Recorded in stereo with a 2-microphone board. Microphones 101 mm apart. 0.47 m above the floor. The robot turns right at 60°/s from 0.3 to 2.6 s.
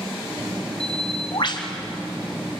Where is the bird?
90° left, 2.5 m; by 1.7 s 145° left, 2.5 m.